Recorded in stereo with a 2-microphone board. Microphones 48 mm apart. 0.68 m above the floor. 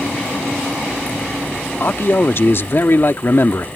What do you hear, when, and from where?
1.8 s a man speaking: 55° left (ahead or behind)